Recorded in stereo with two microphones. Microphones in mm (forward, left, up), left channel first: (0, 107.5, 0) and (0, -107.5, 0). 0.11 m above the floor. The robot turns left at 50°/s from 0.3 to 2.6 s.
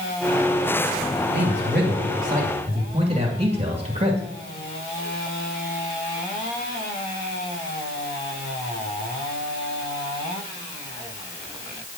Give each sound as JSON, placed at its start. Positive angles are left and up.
{"t": 1.3, "sound": "a man speaking", "azimuth_deg": -80, "distance_m": 2.5}